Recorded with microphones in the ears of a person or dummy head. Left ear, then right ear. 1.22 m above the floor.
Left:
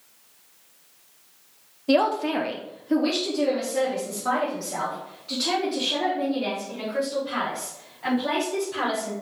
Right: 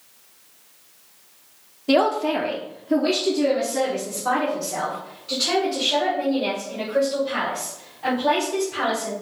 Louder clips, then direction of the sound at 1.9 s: Right 2 dB; centre (ahead or behind).